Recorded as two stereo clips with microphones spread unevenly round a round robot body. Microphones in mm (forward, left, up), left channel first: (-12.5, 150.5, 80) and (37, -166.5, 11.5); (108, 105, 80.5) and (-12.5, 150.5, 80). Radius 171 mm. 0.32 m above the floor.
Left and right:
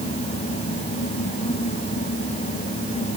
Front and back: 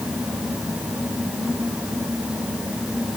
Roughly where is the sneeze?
I don't hear a sneeze.